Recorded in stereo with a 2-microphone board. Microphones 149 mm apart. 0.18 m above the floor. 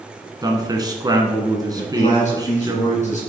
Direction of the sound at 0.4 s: 25° right (ahead or behind).